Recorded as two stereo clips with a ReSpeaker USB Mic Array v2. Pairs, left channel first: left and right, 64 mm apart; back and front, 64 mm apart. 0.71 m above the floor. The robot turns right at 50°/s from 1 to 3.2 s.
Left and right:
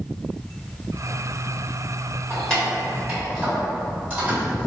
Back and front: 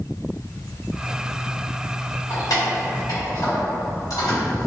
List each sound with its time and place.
2.3 s keys jangling: 160° left, 1.9 m; by 4.7 s 155° right, 1.9 m